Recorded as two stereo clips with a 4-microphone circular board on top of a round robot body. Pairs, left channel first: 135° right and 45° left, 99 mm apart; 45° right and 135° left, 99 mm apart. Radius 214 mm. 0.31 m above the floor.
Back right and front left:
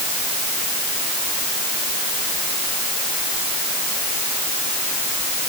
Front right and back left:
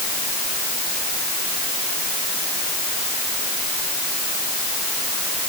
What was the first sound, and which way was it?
Only background noise.